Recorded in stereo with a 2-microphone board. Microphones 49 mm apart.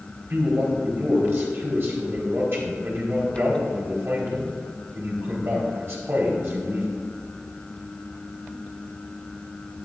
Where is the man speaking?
55° right (ahead or behind), 3.5 m.